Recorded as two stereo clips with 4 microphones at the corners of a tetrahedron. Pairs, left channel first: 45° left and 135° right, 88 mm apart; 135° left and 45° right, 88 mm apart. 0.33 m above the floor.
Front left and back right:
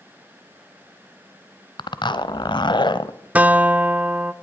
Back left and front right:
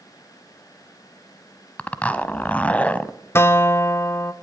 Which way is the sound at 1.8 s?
60° left.